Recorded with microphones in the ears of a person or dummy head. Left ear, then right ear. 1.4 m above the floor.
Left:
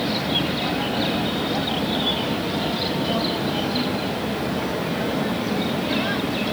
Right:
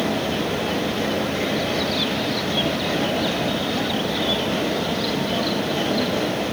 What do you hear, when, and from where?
Only background noise.